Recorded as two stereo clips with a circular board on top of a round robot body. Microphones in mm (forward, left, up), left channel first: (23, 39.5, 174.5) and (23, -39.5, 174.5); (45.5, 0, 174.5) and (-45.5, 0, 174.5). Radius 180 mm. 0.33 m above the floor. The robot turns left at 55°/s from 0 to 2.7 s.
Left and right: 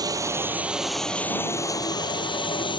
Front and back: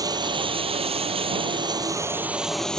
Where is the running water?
130° right; by 2.8 s 80° left.